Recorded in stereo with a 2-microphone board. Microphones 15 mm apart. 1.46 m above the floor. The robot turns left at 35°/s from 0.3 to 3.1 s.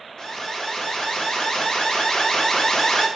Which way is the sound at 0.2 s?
145° left.